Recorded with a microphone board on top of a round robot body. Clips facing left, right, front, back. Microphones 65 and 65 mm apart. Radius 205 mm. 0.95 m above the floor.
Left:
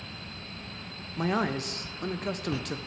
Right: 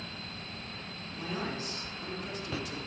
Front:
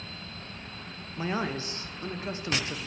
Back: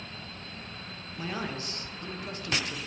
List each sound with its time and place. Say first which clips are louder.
1.2 s a man speaking: left 9 dB, front 4 dB; 65° left, 1.2 m